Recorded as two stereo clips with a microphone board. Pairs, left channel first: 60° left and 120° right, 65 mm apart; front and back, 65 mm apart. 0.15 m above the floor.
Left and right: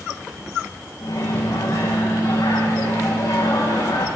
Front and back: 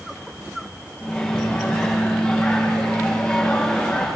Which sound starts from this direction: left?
A microwave, at 1.0 s.